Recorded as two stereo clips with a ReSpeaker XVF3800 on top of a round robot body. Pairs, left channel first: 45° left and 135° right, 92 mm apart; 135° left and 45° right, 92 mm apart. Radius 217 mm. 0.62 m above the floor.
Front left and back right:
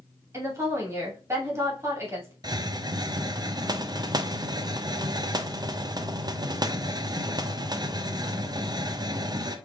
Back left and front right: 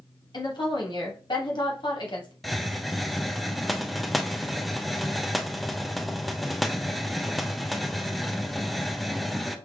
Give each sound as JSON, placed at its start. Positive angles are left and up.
{"t": 0.3, "sound": "a woman speaking", "azimuth_deg": 165, "distance_m": 2.5}
{"t": 2.4, "sound": "a hiss", "azimuth_deg": -135, "distance_m": 0.8}